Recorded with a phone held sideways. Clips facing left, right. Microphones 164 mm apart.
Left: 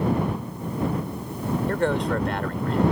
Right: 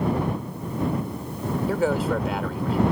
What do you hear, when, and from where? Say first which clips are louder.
1.7 s a man speaking: right 2 dB; 5° right (ahead or behind)